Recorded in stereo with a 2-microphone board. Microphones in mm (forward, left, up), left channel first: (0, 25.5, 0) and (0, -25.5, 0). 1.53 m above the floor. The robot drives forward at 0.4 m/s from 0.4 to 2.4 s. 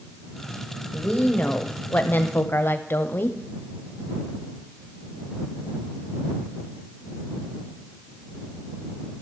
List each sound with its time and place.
0.9 s a woman speaking: 25° left (ahead or behind), 1.0 m; by 3.4 s 45° left (ahead or behind), 0.6 m